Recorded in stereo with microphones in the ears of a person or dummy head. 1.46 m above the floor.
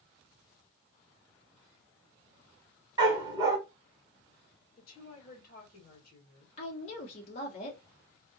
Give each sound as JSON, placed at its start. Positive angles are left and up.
{"t": 3.0, "sound": "a dog barking", "side_deg": -25, "distance_m": 1.7}
{"t": 4.8, "sound": "a woman speaking", "side_deg": 55, "distance_m": 1.9}
{"t": 6.6, "sound": "a woman speaking", "side_deg": 40, "distance_m": 1.8}